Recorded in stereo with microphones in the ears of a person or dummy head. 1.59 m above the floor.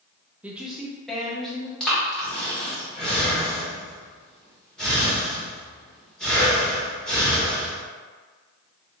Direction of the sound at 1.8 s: 5° left (ahead or behind).